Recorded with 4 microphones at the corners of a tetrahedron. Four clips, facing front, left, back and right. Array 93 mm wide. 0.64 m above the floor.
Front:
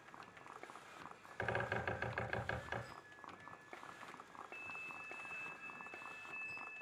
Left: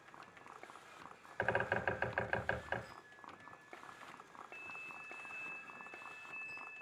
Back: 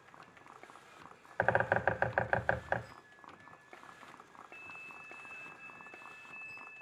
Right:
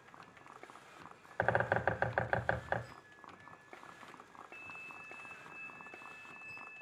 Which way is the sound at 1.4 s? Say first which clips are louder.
Right 4 dB, back 10 dB; 150° right.